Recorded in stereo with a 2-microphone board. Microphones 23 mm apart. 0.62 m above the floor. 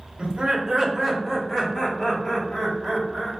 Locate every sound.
0.2 s laughter: 50° right (ahead or behind), 1.2 m; by 3.3 s 45° left (ahead or behind), 3 m